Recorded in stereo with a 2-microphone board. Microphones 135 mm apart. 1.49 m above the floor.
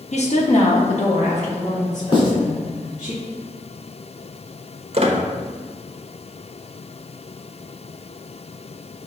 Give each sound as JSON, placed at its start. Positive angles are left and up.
{"t": 0.1, "sound": "a woman speaking", "side_deg": 55, "distance_m": 1.1}
{"t": 2.1, "sound": "writing", "side_deg": 40, "distance_m": 2.5}
{"t": 4.9, "sound": "a squeak", "side_deg": -45, "distance_m": 0.9}